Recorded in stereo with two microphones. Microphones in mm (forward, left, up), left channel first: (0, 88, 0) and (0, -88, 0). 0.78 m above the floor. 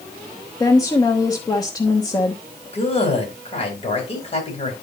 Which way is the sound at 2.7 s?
35° left (ahead or behind).